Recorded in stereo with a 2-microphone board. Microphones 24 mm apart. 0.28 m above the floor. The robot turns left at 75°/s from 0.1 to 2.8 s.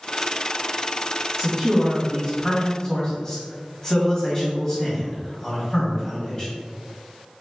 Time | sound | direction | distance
1.4 | a man speaking | 110° right | 1.7 m